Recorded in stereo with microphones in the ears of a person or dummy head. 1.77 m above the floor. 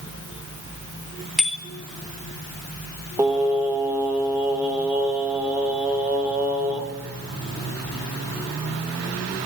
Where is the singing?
10° right (ahead or behind), 2.5 m.